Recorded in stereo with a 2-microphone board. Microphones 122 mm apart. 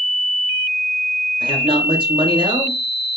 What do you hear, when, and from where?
1.4 s a man speaking: 45° right (ahead or behind), 1.4 m